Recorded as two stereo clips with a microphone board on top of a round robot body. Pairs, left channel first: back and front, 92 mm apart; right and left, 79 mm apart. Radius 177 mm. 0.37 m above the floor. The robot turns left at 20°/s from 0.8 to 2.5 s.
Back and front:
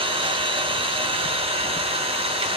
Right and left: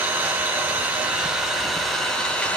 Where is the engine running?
20° left, 1.1 m; by 2.6 s 15° right, 1.1 m.